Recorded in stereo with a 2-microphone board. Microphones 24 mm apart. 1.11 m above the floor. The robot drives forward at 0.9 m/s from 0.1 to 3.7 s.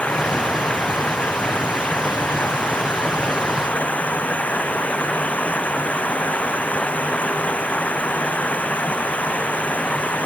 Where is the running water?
70° left (ahead or behind); by 10.3 s 80° left.